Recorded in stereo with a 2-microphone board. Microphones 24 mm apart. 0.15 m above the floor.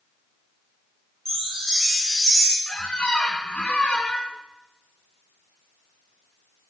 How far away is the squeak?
About 1.6 m.